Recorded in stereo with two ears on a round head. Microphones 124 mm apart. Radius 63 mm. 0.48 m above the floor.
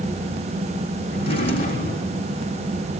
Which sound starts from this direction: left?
A drawer, at 1.1 s.